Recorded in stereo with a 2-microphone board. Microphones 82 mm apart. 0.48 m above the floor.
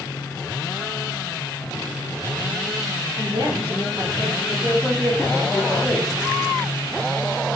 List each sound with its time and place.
3.2 s a woman speaking: 60° right (ahead or behind), 1.3 m; by 4.4 s 30° right (ahead or behind), 1.5 m
4.5 s a man speaking: 5° right (ahead or behind), 0.9 m